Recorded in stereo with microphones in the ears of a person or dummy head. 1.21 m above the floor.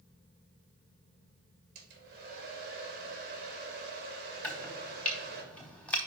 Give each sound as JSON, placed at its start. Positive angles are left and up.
{"t": 1.8, "sound": "a hair dryer", "side_deg": -60, "distance_m": 2.0}
{"t": 4.4, "sound": "chopping", "side_deg": 5, "distance_m": 1.0}